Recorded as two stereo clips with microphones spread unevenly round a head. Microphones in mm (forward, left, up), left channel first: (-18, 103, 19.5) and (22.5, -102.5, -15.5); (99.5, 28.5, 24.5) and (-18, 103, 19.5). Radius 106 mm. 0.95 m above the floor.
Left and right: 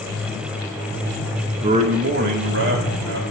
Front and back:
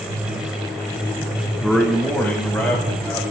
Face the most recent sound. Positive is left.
turn(degrees=-105)